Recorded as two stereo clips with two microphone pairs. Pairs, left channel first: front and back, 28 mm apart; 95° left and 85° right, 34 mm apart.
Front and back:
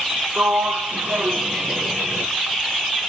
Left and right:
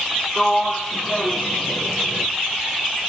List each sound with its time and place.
0.4 s a sliding door: 170° left, 1.5 m